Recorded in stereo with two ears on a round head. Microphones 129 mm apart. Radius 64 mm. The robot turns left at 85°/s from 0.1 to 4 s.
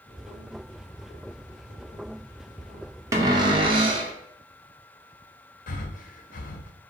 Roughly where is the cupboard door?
Ahead right.